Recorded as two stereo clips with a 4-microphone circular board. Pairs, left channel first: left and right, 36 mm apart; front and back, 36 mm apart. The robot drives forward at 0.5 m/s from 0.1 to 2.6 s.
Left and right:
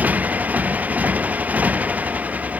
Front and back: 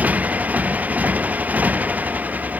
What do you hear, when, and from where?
0.0 s a motorcycle: 135° right